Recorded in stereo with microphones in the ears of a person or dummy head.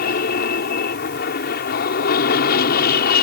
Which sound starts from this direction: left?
An aircraft, at 0.0 s.